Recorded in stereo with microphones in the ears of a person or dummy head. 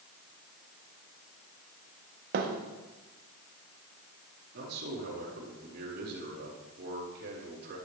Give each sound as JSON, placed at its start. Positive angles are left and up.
{"t": 2.3, "sound": "a thud", "side_deg": -45, "distance_m": 1.2}
{"t": 4.5, "sound": "a man speaking", "side_deg": -60, "distance_m": 4.5}